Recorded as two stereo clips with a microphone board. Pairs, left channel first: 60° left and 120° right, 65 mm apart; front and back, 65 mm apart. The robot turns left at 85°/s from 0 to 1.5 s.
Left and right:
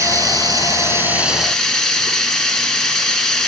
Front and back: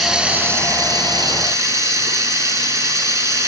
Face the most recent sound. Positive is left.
turn(degrees=145)